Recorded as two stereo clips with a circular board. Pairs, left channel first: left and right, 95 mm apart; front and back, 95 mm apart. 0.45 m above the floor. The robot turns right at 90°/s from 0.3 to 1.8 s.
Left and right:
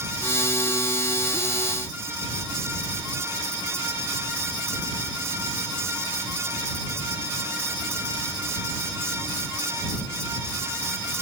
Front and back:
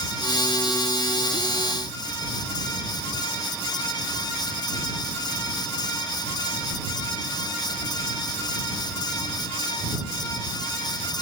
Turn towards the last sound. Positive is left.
No sound to turn to.